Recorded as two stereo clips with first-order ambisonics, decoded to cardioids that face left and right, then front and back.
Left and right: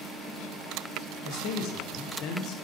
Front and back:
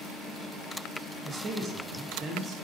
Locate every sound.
1.2 s a man speaking: 115° left, 0.7 m